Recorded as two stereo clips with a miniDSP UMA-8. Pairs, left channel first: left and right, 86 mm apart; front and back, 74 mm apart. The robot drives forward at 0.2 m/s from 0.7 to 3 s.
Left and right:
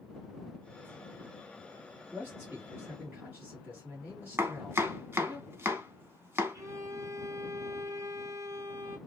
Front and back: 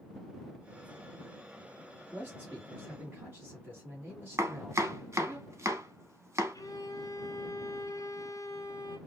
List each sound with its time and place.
2.1 s a man speaking: 135° right, 1.4 m; by 5.4 s 145° right, 1.4 m
4.4 s chopping: 145° right, 0.7 m
6.5 s a violin: 35° right, 0.7 m